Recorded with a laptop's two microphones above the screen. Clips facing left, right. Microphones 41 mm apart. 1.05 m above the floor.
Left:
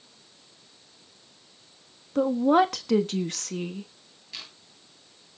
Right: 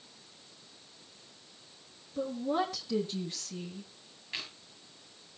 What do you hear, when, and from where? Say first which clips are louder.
2.1 s a woman speaking: left 11 dB; 75° left (ahead or behind), 1.3 m
4.3 s chewing: right 2 dB; 25° right (ahead or behind), 8 m